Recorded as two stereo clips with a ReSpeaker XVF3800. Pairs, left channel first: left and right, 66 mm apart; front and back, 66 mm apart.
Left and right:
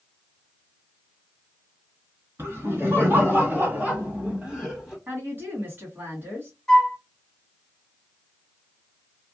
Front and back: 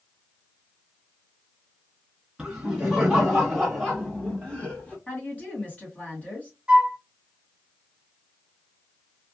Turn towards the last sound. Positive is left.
turn(degrees=145)